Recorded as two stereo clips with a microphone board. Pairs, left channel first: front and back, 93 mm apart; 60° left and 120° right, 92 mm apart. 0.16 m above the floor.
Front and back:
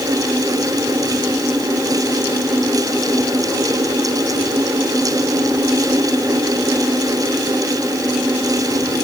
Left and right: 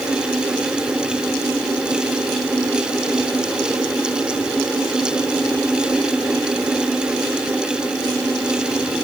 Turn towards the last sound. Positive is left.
No sound to turn to.